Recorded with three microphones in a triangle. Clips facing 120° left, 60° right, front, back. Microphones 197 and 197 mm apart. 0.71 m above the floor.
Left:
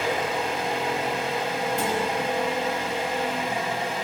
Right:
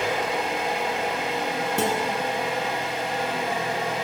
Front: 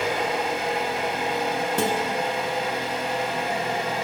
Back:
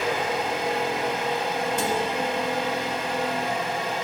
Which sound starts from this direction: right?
An engine running, at 0.0 s.